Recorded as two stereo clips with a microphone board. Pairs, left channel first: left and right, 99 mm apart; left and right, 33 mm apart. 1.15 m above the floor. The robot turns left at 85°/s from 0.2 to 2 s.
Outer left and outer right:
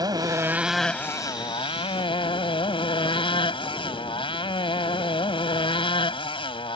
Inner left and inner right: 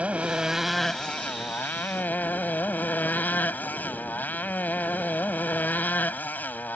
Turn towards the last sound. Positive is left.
turn(degrees=75)